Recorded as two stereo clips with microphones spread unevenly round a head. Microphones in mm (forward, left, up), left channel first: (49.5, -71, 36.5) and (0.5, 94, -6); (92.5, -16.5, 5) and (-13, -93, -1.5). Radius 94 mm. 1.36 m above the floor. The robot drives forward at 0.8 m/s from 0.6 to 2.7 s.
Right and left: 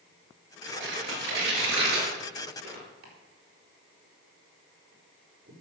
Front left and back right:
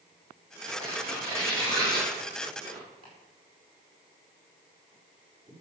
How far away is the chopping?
About 4.5 m.